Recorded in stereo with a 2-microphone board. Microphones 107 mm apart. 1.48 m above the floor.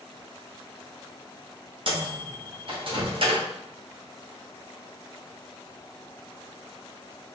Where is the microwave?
55° right (ahead or behind), 1.0 m.